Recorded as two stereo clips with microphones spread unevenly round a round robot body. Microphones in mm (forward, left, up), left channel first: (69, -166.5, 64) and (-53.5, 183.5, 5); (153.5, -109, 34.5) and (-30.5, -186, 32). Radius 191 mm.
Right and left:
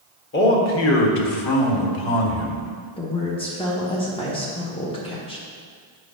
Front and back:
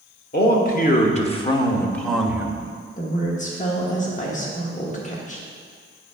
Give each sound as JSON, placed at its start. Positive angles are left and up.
{"t": 0.3, "sound": "a man speaking", "azimuth_deg": -10, "distance_m": 1.5}
{"t": 3.0, "sound": "a woman speaking", "azimuth_deg": 10, "distance_m": 1.1}